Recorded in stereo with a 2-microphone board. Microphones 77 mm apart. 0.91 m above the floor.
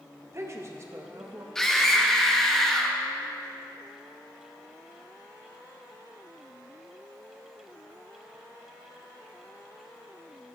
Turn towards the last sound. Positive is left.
turn(degrees=5)  # may be behind; listen again after turning